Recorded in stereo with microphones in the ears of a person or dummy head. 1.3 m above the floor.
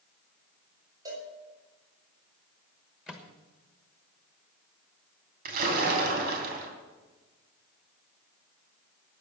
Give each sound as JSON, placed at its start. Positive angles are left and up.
{"t": 1.1, "sound": "a cowbell", "side_deg": -20, "distance_m": 5.0}
{"t": 3.1, "sound": "a microwave", "side_deg": 5, "distance_m": 1.2}
{"t": 5.5, "sound": "a splash", "side_deg": -55, "distance_m": 3.0}